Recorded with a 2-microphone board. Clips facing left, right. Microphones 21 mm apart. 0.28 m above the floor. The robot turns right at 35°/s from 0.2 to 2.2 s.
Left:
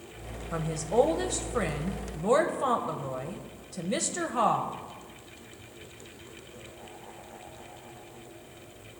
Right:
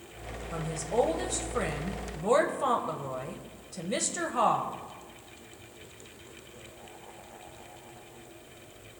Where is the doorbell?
No doorbell in this recording.